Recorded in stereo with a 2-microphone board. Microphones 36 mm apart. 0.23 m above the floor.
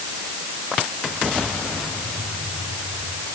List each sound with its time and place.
Only background noise.